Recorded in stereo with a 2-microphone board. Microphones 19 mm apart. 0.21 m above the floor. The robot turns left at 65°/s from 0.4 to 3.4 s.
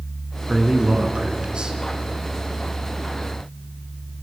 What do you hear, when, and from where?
0.5 s a man speaking: 45° right, 2.5 m; by 1.8 s 125° right, 2.5 m